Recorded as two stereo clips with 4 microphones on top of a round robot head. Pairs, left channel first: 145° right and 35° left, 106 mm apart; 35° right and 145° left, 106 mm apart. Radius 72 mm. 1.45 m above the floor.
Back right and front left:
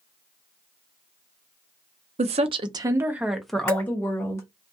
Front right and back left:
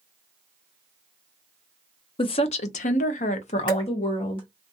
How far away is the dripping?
About 1.7 m.